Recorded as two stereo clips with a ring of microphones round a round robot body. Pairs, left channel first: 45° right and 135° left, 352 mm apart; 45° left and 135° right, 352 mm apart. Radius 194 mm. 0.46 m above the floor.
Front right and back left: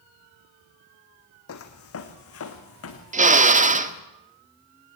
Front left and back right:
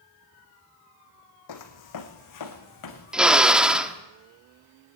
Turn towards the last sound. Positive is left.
turn(degrees=140)